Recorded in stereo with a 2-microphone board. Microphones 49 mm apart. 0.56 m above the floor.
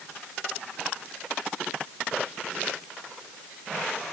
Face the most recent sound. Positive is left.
No sound to turn to.